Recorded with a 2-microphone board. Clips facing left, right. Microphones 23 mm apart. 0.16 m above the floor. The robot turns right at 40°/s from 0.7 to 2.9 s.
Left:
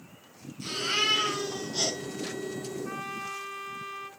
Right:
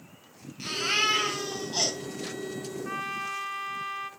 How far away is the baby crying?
About 7.5 m.